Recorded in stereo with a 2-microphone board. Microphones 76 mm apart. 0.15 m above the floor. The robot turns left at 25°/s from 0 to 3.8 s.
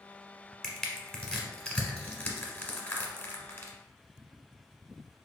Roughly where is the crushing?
Centre.